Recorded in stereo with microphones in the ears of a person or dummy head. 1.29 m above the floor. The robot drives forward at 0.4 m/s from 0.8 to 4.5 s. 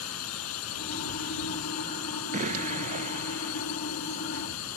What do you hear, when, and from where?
0.0 s a drone: 80° left
2.3 s an explosion: 50° right (ahead or behind)